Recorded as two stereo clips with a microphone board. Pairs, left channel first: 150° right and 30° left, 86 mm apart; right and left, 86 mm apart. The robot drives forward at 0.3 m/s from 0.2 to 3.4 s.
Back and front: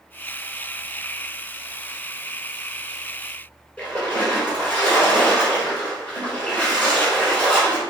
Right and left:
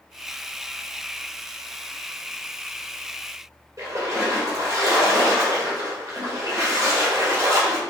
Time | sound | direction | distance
3.8 | a splash | 135° left | 1.9 m